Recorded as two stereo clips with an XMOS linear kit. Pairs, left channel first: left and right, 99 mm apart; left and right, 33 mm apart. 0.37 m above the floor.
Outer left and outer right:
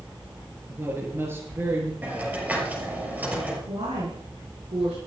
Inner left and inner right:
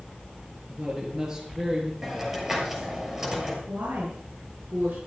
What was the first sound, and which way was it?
A woman speaking, 25° right (ahead or behind).